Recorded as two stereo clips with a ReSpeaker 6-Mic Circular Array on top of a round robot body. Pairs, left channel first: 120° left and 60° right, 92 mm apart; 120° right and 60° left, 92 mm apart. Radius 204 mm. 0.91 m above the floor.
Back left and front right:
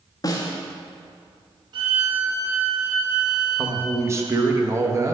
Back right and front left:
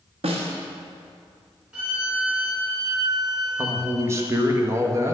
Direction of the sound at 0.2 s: 70° left.